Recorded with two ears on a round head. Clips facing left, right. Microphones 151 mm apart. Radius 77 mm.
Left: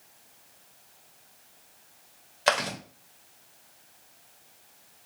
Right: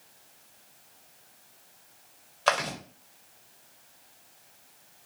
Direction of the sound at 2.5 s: 15° left (ahead or behind).